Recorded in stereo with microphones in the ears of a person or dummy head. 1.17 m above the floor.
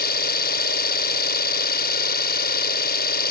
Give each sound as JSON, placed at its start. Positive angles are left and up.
{"t": 0.0, "sound": "an engine running", "side_deg": 60}